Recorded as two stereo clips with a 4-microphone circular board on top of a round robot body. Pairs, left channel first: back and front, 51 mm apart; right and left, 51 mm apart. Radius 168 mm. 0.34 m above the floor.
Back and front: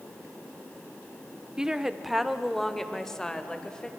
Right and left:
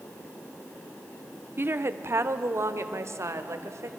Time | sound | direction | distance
1.6 | a woman speaking | 75° left | 1.1 m